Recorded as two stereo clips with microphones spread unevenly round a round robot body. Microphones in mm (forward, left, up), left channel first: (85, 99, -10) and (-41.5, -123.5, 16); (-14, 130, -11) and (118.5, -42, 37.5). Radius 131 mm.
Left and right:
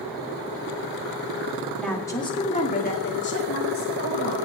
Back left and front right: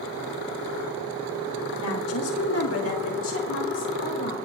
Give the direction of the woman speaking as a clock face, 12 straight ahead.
7 o'clock.